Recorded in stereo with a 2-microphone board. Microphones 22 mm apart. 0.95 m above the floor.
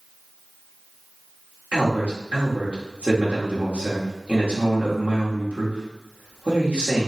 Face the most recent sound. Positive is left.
turn(degrees=-70)  # may be behind; listen again after turning